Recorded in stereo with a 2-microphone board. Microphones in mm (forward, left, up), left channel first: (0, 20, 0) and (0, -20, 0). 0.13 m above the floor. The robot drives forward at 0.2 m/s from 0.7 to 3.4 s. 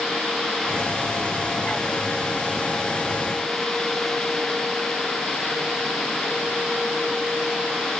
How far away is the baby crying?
I don't hear a baby crying.